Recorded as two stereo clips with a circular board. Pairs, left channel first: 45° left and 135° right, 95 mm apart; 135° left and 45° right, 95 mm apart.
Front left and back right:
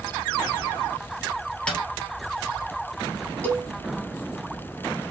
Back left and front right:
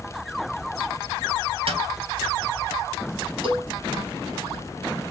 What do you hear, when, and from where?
1.7 s a snare drum: 35° right, 1.6 m
3.4 s a cowbell: 30° right, 2.5 m